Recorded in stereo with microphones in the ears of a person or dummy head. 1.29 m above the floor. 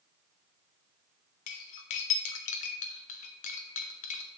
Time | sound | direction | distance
1.5 | cutlery clinking | 30° left (ahead or behind) | 0.7 m